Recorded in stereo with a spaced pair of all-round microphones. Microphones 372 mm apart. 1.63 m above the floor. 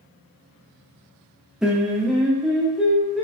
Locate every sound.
1.6 s singing: centre (ahead or behind), 0.6 m